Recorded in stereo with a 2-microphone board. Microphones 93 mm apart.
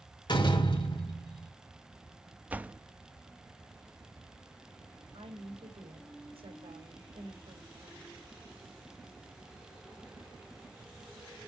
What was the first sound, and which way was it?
A door slam, 55° left (ahead or behind).